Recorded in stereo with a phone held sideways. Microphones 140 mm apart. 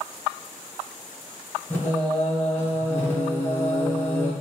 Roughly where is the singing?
Centre.